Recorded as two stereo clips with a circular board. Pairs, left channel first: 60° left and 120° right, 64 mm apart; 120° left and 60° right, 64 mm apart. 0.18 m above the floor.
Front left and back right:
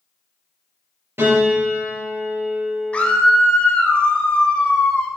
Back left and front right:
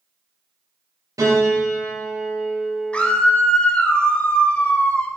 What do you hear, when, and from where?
1.2 s a piano: 75° right, 4 m
2.9 s a scream: 90° left, 1.0 m